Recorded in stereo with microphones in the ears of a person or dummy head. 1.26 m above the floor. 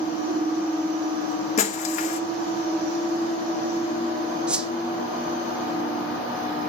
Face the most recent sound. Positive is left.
turn(degrees=-5)  # may be behind; listen again after turning